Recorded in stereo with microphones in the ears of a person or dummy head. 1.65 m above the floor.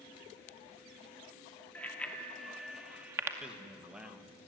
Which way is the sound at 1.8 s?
10° left (ahead or behind).